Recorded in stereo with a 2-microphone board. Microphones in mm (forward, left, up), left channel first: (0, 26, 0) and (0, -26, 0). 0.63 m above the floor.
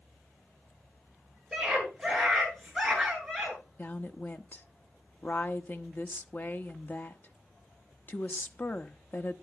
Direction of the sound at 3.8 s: 35° left (ahead or behind).